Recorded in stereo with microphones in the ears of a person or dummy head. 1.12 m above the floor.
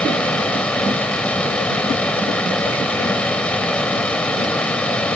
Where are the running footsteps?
I don't hear running footsteps.